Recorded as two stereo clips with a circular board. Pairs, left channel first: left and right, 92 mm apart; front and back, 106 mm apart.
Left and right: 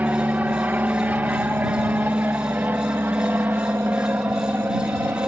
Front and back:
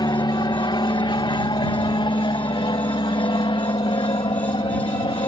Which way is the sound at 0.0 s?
25° right.